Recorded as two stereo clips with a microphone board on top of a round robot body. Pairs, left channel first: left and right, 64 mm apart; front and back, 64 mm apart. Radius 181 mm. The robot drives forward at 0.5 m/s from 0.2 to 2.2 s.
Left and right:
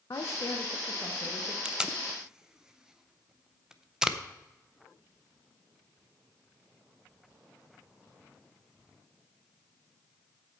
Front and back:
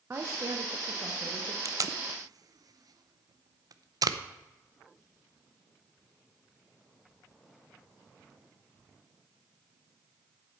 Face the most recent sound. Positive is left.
turn(degrees=-170)